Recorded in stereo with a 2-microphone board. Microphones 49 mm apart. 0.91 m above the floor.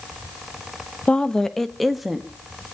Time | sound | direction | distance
1.1 | a woman speaking | 20° left (ahead or behind) | 0.9 m